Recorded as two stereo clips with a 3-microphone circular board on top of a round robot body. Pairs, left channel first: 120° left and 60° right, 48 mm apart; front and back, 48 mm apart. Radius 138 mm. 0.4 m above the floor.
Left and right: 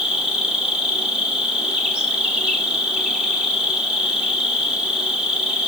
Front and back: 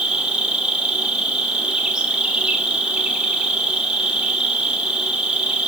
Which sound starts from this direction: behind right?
An insect, at 0.0 s.